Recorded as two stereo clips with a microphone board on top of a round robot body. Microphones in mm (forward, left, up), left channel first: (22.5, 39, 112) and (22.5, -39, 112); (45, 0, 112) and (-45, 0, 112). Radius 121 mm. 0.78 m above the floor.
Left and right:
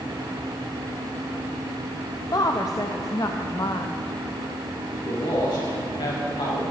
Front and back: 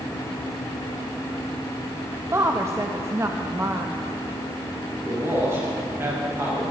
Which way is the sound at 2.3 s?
125° left.